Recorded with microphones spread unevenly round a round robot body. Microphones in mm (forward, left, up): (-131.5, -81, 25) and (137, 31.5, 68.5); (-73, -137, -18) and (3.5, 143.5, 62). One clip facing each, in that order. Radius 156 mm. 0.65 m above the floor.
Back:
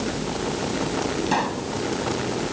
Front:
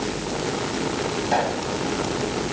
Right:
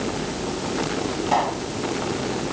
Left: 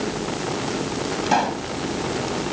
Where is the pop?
130° left.